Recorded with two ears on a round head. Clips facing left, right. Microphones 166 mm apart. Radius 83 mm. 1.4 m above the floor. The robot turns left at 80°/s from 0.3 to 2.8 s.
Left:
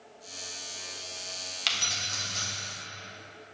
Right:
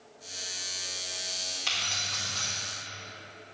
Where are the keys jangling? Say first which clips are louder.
Left 1 dB; 75° left, 1.4 m; by 2.5 s 5° left, 1.4 m.